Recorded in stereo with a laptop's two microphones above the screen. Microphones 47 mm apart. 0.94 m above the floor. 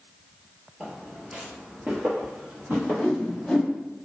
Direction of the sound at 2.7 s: 20° left (ahead or behind).